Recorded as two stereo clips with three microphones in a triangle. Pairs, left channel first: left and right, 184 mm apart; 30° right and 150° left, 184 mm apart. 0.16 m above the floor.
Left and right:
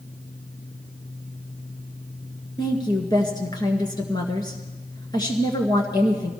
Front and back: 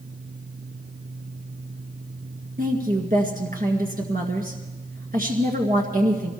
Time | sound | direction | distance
2.6 | a woman speaking | 150° left | 1.9 m